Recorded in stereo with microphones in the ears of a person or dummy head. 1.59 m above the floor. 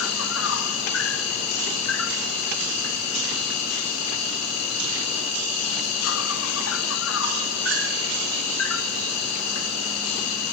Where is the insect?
80° left, 0.8 m.